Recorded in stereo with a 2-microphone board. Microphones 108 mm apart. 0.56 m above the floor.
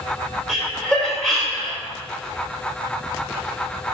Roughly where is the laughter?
Centre.